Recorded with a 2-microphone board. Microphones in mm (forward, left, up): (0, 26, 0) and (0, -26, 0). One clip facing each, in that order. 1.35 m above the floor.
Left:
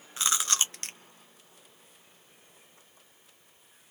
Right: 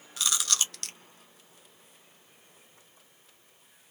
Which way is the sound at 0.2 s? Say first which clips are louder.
Left 2 dB; 25° left (ahead or behind).